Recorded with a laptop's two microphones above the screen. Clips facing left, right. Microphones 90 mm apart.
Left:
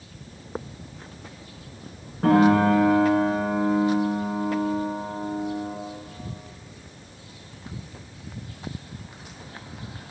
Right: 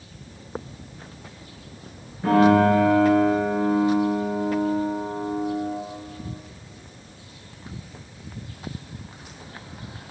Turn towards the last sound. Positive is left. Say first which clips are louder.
# right 1 dB
turn(degrees=85)